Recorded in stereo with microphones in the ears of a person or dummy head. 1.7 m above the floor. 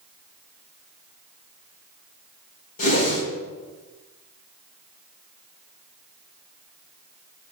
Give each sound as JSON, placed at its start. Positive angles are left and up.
{"t": 2.8, "sound": "a whoosh", "side_deg": 50, "distance_m": 4.0}